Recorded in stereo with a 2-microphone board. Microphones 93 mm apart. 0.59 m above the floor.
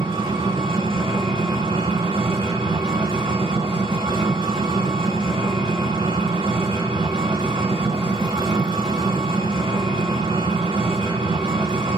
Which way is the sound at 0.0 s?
65° right (ahead or behind).